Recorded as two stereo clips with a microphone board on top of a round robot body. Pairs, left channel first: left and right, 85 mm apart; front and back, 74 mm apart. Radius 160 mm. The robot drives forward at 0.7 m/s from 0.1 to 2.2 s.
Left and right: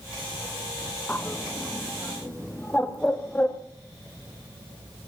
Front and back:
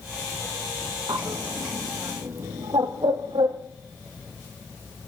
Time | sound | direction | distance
1.1 | a bird | 160° left | 1.8 m